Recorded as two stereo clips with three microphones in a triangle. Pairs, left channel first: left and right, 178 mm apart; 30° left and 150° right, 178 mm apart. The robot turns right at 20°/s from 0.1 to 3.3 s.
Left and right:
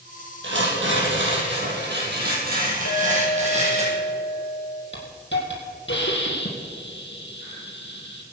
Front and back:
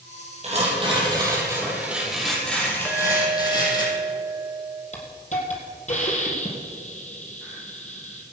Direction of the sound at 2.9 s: 115° left.